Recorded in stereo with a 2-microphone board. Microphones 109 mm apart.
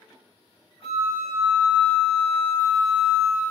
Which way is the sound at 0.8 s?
60° left (ahead or behind).